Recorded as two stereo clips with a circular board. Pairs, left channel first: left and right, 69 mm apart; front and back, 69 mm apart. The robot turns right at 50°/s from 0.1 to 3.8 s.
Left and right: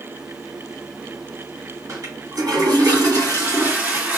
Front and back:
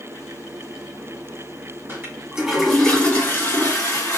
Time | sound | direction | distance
1.9 | a toilet flushing | 130° right | 1.5 m